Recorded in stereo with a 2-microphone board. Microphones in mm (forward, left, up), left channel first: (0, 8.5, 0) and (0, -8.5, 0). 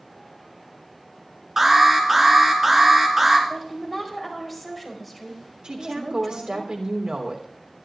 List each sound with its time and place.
1.6 s an alarm: 20° right (ahead or behind), 3.5 m
3.5 s a woman speaking: centre (ahead or behind), 5 m
5.6 s a woman speaking: 70° right (ahead or behind), 3.5 m